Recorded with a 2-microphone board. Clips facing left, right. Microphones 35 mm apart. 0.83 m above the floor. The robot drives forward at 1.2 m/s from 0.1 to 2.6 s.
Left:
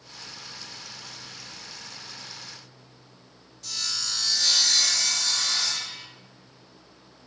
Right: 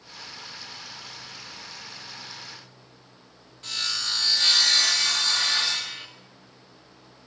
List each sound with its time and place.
3.6 s sawing: 40° right (ahead or behind), 1.6 m